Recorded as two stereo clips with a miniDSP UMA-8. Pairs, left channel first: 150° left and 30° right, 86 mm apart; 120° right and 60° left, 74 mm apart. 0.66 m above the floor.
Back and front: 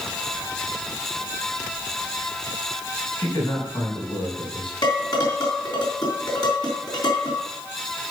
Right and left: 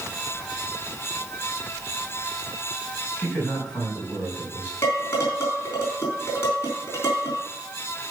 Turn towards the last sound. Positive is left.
turn(degrees=-175)